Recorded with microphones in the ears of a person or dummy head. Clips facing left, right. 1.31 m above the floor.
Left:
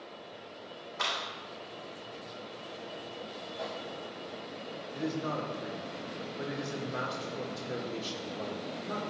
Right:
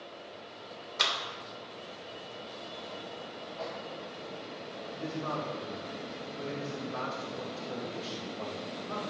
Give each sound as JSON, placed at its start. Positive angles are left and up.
{"t": 1.0, "sound": "a clap", "side_deg": -55, "distance_m": 2.5}
{"t": 3.6, "sound": "a microwave", "side_deg": 25, "distance_m": 4.0}
{"t": 4.9, "sound": "a man speaking", "side_deg": 20, "distance_m": 2.5}